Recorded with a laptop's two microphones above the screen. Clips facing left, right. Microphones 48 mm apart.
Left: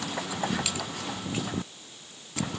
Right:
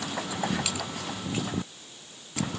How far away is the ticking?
No ticking in this recording.